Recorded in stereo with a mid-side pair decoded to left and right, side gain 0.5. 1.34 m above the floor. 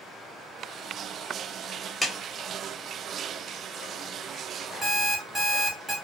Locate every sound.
2.0 s a clap: 5° left, 1.2 m
4.8 s an alarm clock: 15° right, 1.5 m